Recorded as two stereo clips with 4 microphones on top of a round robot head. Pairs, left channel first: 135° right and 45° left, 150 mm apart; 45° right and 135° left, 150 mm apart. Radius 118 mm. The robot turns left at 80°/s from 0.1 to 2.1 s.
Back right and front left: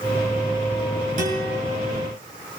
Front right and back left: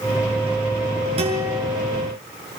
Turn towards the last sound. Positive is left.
turn(degrees=10)